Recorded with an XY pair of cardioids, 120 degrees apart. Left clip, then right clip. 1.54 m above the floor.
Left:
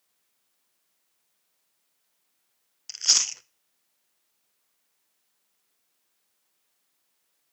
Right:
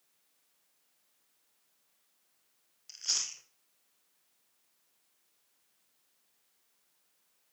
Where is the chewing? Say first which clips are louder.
Left 11 dB; 65° left, 0.6 m.